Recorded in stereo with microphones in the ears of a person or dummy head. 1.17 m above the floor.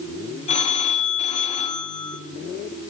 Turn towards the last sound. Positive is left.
turn(degrees=35)  # may be behind; listen again after turning